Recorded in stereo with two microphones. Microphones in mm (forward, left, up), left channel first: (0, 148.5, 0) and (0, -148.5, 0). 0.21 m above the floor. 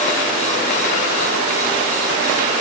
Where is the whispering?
I don't hear whispering.